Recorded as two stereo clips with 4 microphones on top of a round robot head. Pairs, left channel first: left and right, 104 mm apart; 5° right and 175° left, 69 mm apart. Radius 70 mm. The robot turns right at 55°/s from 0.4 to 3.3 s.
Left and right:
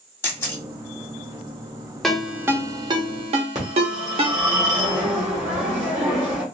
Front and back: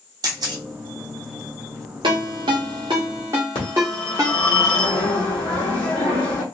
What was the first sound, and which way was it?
A camera shutter, 155° left.